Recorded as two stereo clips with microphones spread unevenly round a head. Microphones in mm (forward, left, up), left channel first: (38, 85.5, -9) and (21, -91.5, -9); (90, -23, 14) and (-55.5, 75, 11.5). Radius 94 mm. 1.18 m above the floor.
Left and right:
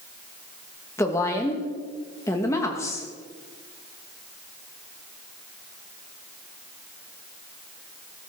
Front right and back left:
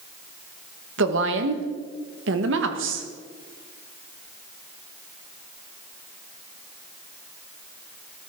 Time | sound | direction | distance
1.0 | a woman speaking | 160° left | 1.5 m